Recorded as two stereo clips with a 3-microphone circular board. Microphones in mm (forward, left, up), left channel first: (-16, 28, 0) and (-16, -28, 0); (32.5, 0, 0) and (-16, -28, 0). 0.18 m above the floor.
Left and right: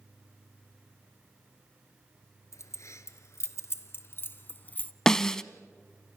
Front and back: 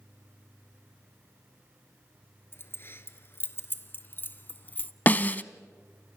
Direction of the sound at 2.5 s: 70° left.